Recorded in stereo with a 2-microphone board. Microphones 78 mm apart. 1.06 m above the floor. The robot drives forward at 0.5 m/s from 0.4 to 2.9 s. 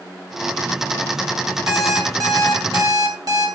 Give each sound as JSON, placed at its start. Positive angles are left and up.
{"t": 1.7, "sound": "an alarm clock", "side_deg": -50, "distance_m": 3.5}